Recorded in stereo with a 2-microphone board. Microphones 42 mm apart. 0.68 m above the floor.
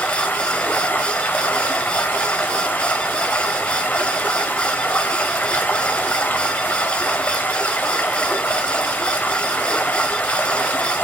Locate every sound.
0.0 s running water: 50° left (ahead or behind), 1.1 m